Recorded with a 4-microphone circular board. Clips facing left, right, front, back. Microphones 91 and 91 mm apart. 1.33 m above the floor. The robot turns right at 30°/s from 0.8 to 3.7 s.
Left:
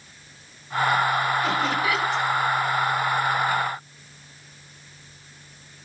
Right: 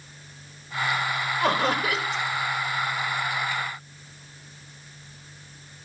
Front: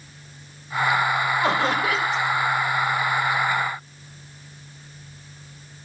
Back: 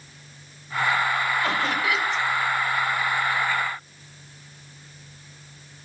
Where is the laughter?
70° right, 1.9 m; by 2.2 s 45° right, 1.9 m.